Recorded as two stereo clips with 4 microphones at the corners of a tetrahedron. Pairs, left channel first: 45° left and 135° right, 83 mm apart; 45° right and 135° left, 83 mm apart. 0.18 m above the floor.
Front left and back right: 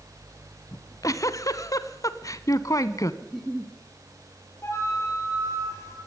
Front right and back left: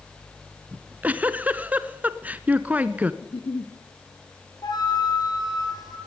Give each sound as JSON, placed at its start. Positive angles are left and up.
{"t": 0.7, "sound": "a giggle", "azimuth_deg": 70, "distance_m": 1.0}
{"t": 3.2, "sound": "a giggle", "azimuth_deg": -45, "distance_m": 2.5}
{"t": 4.6, "sound": "a flute", "azimuth_deg": -10, "distance_m": 6.0}